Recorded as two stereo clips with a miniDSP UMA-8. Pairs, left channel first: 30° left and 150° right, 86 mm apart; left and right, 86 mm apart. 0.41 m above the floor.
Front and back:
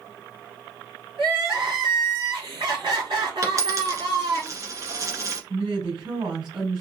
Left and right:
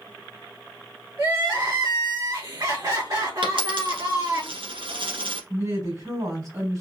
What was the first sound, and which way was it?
Crying, 130° right.